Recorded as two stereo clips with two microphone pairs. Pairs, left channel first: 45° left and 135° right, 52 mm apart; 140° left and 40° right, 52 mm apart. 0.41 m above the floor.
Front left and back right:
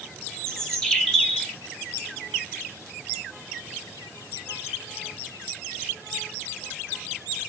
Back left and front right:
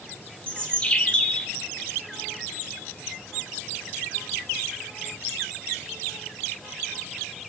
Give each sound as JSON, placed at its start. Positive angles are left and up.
{"t": 0.5, "sound": "a bird", "azimuth_deg": 105, "distance_m": 0.8}